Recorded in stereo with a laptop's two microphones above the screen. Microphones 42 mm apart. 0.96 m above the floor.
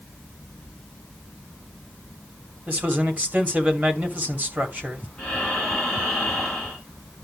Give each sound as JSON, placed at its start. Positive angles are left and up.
{"t": 2.7, "sound": "a man speaking", "side_deg": -35, "distance_m": 2.5}
{"t": 5.2, "sound": "breathing", "side_deg": 5, "distance_m": 4.0}